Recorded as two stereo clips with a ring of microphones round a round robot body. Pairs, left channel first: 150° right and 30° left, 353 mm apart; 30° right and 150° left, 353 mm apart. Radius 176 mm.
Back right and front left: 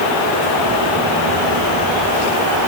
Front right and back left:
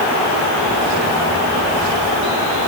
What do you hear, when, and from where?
Only background noise.